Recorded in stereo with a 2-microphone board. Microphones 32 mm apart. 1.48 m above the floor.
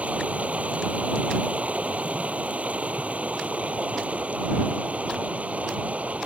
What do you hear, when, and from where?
0.0 s running water: 55° right (ahead or behind)